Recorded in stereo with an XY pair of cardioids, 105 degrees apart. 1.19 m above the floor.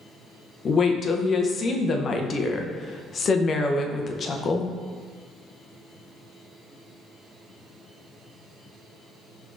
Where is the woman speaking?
50° left, 0.6 m.